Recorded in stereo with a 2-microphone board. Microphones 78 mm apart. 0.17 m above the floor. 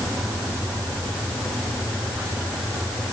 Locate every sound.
Only background noise.